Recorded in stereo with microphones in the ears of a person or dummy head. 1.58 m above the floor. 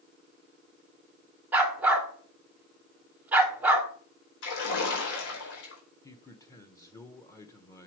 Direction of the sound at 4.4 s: 75° left (ahead or behind).